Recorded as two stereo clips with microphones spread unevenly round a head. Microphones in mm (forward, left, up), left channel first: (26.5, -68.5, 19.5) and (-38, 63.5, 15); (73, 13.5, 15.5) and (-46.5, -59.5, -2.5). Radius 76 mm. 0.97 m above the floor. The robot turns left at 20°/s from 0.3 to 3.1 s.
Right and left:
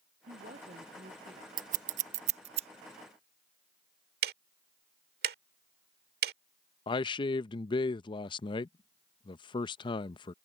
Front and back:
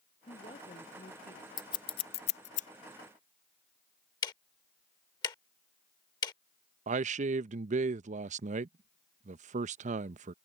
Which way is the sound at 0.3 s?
85° left.